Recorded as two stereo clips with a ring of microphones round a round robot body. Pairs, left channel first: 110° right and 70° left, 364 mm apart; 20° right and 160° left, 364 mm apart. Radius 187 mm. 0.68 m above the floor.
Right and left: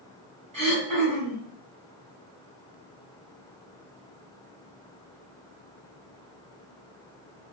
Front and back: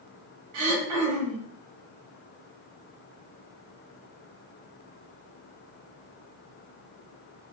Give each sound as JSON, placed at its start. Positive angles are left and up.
{"t": 0.5, "sound": "throat clearing", "azimuth_deg": 140, "distance_m": 1.3}